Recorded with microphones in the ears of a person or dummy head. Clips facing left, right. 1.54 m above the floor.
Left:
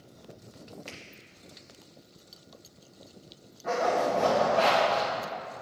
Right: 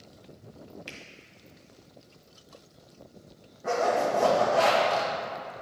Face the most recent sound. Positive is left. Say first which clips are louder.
# right 1 dB
turn(degrees=-50)  # may be behind; listen again after turning